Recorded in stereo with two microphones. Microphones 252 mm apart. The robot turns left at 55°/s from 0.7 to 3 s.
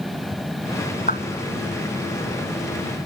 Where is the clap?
35° left (ahead or behind); by 1.2 s 40° left (ahead or behind).